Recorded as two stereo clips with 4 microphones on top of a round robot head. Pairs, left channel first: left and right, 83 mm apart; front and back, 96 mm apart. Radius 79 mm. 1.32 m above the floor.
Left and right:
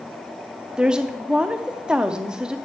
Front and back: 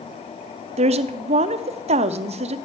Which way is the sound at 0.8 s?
170° right.